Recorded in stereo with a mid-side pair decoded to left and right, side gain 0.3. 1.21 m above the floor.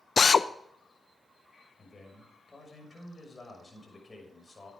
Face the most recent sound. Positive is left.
turn(degrees=30)